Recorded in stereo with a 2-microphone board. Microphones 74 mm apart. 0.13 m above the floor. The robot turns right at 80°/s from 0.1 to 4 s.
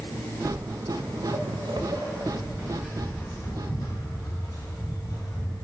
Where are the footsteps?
35° right (ahead or behind), 1.1 m; by 5.5 s 70° left (ahead or behind), 5.5 m.